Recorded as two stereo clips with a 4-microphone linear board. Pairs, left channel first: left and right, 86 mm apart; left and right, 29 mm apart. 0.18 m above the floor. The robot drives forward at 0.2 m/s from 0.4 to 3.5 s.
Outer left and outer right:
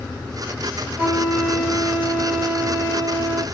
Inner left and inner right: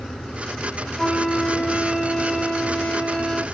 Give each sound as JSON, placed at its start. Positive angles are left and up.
{"t": 1.0, "sound": "a flute", "side_deg": -30, "distance_m": 1.4}